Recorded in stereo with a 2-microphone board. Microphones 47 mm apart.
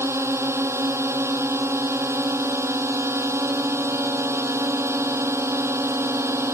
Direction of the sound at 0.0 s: 70° right (ahead or behind).